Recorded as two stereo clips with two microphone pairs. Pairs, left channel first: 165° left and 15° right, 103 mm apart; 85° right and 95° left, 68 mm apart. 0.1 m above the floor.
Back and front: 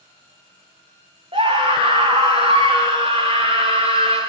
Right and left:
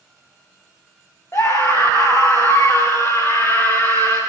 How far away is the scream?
About 8.5 m.